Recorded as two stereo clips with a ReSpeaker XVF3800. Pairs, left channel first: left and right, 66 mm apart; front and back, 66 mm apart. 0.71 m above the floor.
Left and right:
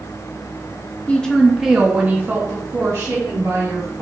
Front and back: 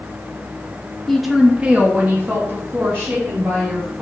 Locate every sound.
1.1 s a woman speaking: 80° left, 0.6 m; by 4.0 s 130° right, 1.6 m